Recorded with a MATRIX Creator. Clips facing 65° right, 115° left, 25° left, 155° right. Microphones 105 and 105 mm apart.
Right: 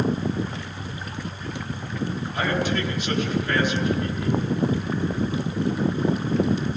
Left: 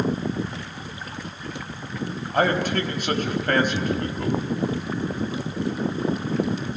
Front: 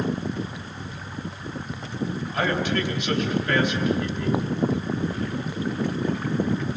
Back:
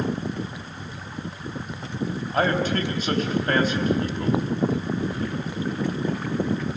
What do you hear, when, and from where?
2.3 s a man speaking: 150° left, 3.5 m